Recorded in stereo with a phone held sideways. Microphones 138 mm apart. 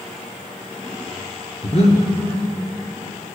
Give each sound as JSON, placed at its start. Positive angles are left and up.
{"t": 1.6, "sound": "breathing", "side_deg": 50, "distance_m": 1.3}